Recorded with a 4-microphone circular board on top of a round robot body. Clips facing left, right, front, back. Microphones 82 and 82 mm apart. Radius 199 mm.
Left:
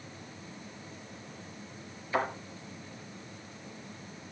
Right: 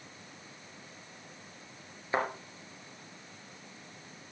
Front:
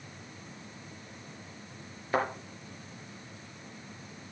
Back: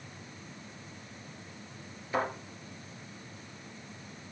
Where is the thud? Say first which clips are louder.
Left 1 dB, front 2 dB; 30° right, 3.5 m.